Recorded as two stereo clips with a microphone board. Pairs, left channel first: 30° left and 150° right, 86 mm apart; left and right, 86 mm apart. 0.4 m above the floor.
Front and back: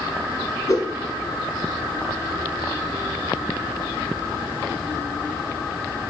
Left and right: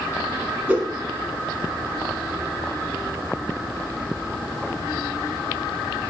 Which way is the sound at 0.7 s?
15° right.